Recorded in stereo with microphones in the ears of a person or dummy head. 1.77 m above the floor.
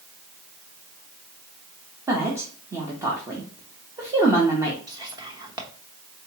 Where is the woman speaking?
15° right (ahead or behind), 0.6 m.